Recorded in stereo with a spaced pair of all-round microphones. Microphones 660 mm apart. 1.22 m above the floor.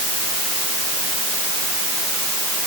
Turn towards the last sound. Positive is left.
No sound to turn to.